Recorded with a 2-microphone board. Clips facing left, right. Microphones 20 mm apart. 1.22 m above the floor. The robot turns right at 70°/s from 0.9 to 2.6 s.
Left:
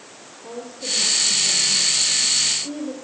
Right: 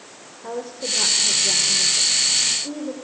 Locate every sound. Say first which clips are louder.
0.4 s a woman speaking: right 2 dB; 135° right, 5.5 m; by 2.9 s 15° right, 5.5 m